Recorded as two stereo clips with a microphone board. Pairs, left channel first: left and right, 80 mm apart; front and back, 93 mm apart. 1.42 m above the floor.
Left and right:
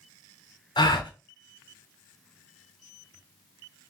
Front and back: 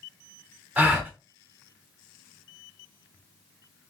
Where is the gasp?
105° left, 0.6 m.